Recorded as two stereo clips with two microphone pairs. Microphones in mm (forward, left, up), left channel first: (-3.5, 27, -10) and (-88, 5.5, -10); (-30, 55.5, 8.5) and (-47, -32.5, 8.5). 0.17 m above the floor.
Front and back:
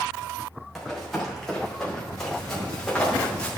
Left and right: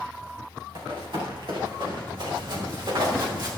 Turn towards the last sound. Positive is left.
turn(degrees=-65)